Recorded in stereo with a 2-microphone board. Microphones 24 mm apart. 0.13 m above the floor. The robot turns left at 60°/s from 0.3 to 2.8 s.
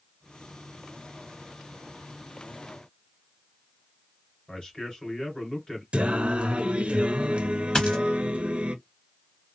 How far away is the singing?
About 0.6 m.